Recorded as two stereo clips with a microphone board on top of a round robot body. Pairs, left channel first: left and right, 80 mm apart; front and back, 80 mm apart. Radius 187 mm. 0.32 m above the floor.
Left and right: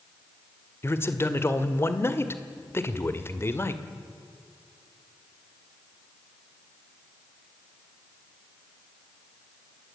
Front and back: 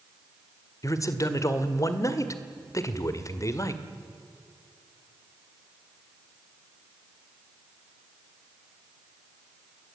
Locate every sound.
0.8 s a man speaking: 40° left, 2 m